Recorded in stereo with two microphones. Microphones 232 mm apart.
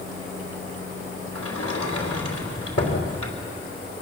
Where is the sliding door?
80° left, 3.5 m.